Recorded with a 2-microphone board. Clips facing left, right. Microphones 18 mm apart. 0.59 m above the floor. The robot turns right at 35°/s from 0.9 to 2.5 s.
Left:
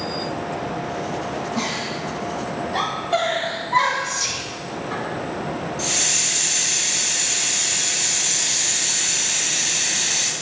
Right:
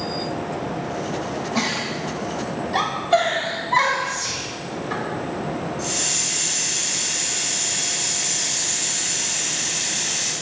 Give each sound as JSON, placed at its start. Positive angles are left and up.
{"t": 1.6, "sound": "a giggle", "side_deg": -50, "distance_m": 3.0}
{"t": 4.0, "sound": "whispering", "side_deg": 55, "distance_m": 3.0}
{"t": 5.8, "sound": "a hiss", "side_deg": 45, "distance_m": 2.0}